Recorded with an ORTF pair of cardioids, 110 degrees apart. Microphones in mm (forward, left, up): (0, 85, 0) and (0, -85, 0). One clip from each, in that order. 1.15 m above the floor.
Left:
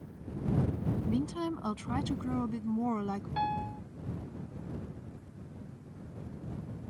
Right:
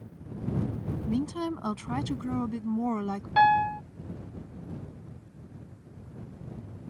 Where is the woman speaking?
20° right.